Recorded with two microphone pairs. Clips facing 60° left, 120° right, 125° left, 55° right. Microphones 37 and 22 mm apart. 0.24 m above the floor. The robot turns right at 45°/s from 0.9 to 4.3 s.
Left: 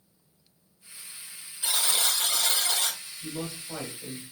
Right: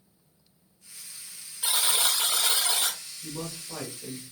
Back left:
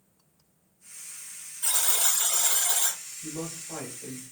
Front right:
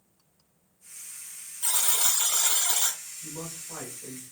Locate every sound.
1.6 s a buzzer: 140° right, 1.0 m; by 3.0 s 80° right, 1.0 m
3.2 s a man speaking: 50° left, 1.6 m; by 4.2 s 100° left, 1.6 m